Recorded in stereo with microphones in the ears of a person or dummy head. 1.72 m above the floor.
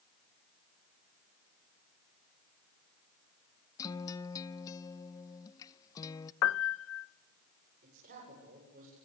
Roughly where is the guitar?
Left.